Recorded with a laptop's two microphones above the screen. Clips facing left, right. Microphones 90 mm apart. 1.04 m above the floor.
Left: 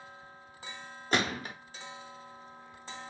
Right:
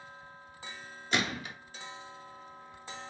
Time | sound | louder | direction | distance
1.1 | a gunshot | left 2 dB | 45° left (ahead or behind) | 0.9 m